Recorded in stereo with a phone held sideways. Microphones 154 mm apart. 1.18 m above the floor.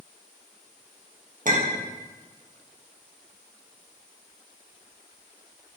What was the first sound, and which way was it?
A clink, 65° right (ahead or behind).